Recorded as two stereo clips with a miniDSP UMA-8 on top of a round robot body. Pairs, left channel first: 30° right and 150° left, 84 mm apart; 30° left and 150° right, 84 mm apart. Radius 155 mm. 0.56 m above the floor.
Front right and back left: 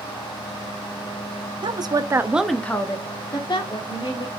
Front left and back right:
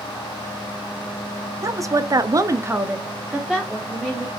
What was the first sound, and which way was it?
A woman speaking, 160° left.